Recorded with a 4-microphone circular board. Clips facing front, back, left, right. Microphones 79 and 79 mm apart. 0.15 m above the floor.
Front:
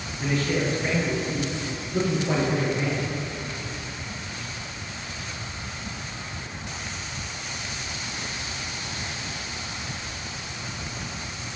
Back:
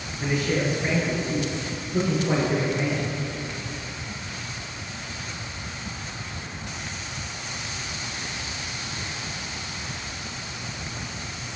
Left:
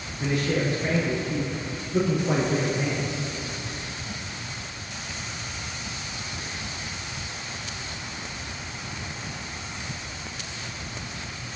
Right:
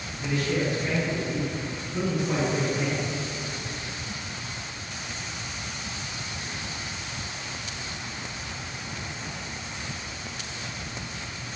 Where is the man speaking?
105° left, 2.0 m.